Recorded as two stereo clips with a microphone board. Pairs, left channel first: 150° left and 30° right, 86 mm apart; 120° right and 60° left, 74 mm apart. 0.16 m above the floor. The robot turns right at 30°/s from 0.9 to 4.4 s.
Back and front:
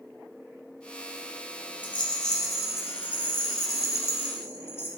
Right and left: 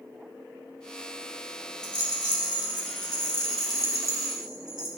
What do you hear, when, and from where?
1.8 s a rattle: 140° right, 5 m; by 4.9 s 65° right, 5 m